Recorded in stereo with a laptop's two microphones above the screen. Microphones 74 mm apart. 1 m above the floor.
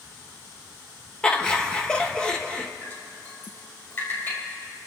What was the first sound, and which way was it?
Laughter, 10° left (ahead or behind).